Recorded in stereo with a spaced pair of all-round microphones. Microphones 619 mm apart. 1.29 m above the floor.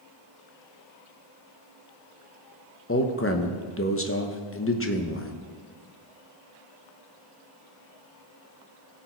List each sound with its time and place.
2.9 s a man speaking: 20° left (ahead or behind), 1.0 m